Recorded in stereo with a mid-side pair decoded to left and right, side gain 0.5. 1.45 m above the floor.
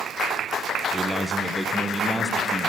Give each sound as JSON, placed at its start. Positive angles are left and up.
{"t": 0.9, "sound": "a man speaking", "azimuth_deg": -10, "distance_m": 0.9}